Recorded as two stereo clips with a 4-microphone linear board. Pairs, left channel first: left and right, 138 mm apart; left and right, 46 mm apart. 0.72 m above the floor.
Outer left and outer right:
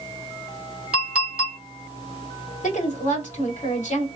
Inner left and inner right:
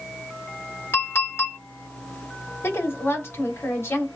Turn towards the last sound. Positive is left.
turn(degrees=65)  # may be behind; listen again after turning